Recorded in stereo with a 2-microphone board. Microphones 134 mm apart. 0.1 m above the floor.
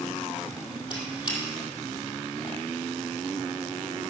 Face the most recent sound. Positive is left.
turn(degrees=35)  # may be behind; listen again after turning